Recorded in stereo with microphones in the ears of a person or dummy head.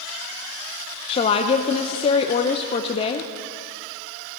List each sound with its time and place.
1.1 s a woman speaking: 35° left (ahead or behind), 0.6 m